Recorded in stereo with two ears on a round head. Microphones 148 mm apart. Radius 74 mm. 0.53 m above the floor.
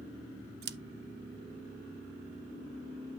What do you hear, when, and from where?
0.6 s scissors: 65° right (ahead or behind), 0.5 m